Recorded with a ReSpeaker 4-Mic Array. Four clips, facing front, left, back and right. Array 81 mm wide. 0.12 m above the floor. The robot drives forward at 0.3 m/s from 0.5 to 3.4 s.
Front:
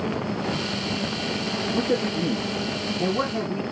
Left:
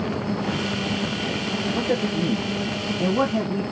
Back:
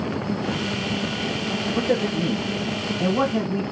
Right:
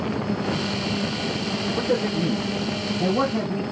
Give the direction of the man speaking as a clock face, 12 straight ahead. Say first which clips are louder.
Right 1 dB, back 2 dB; 6 o'clock.